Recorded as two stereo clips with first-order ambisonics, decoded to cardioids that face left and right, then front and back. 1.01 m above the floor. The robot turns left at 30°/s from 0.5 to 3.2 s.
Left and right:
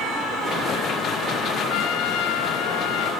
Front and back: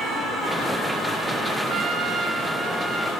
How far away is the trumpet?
About 1.1 m.